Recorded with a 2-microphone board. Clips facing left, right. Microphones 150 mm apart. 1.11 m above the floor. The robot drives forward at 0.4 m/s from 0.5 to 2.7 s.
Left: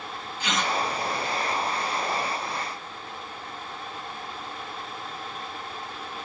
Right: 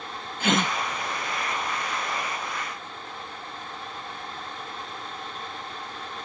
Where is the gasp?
50° right (ahead or behind); by 0.7 s 55° right (ahead or behind).